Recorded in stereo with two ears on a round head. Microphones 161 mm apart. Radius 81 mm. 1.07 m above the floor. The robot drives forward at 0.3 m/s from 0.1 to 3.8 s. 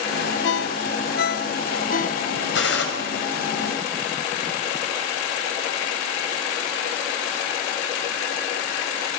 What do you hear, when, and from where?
0.4 s a ringtone: 70° left (ahead or behind), 1.0 m; by 2.2 s 50° left (ahead or behind), 1.2 m
2.5 s a gunshot: 75° left (ahead or behind), 6.5 m